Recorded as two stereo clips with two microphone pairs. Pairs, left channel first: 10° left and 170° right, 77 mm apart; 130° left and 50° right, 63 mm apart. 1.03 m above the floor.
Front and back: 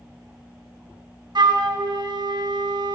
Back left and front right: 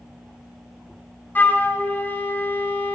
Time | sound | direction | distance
1.4 | a flute | 175° right | 0.6 m